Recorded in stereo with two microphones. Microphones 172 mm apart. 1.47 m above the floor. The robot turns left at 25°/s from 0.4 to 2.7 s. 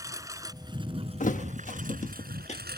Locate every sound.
0.0 s a lawn mower: 20° right; by 2.8 s 75° right
1.2 s a thud: 45° left (ahead or behind); by 2.6 s 40° left (ahead or behind)